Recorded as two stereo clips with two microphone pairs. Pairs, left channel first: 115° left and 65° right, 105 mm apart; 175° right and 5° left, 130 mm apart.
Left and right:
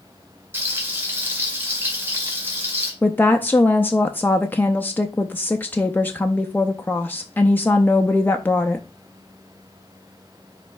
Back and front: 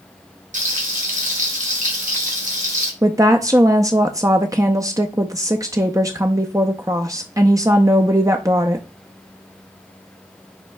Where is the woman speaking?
55° left, 0.6 m.